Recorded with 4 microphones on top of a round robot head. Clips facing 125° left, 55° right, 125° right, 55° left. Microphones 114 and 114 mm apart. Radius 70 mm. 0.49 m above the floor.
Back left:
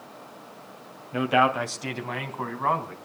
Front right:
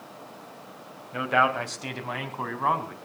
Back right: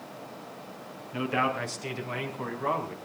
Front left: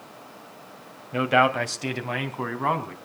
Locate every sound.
1.1 s a man speaking: 55° left, 2 m; by 3.0 s 25° left, 3.5 m